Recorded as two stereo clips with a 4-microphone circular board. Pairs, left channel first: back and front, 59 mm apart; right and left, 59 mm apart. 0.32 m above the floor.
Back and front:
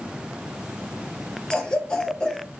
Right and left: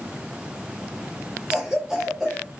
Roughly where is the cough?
Behind left.